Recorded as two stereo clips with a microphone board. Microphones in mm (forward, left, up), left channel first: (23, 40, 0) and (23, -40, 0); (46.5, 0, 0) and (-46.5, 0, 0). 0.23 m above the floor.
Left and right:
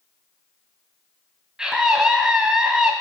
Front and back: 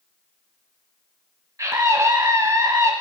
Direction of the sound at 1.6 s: 165° right.